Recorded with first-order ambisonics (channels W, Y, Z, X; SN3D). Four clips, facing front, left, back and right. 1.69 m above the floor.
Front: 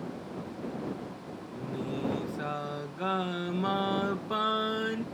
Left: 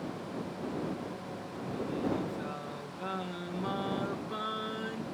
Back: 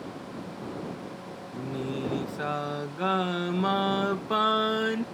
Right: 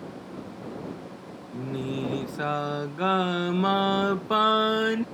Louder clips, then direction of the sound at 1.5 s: Right 6 dB, back 3 dB; 110° right.